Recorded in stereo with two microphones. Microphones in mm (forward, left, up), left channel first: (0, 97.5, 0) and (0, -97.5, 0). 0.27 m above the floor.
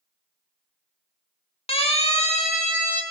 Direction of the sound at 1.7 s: 30° left (ahead or behind).